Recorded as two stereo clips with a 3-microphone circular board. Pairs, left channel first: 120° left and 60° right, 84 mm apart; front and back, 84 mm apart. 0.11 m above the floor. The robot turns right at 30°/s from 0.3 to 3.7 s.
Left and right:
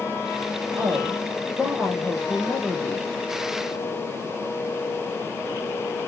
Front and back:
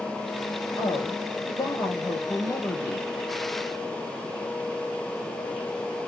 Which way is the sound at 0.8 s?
10° right.